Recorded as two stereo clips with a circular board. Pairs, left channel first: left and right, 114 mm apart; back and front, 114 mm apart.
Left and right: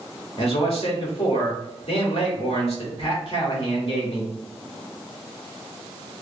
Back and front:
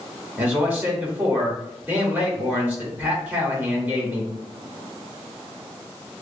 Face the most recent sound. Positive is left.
turn(degrees=70)